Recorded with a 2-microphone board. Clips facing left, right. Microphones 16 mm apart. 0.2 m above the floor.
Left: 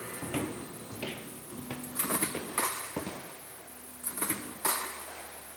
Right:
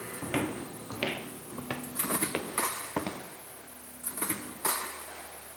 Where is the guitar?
I don't hear a guitar.